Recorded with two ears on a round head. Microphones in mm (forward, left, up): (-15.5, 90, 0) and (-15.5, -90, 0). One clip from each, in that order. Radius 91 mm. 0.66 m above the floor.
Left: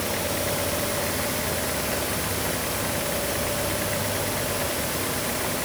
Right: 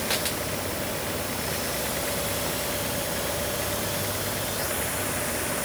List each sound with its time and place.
Only background noise.